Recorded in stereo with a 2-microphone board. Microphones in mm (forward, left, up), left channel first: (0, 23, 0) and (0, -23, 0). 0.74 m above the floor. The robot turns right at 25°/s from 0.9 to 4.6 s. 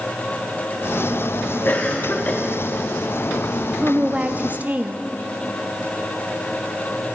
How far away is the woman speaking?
About 0.7 m.